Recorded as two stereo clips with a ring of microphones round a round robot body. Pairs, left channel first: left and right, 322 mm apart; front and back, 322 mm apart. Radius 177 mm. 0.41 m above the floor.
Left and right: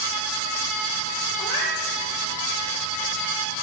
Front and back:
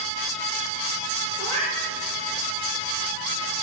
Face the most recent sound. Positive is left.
turn(degrees=110)